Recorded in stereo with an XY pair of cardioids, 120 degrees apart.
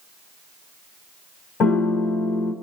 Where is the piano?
50° left, 1.2 m.